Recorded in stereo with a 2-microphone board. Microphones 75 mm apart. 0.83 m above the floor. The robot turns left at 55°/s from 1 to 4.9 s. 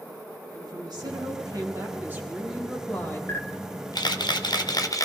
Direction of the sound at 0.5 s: 90° right.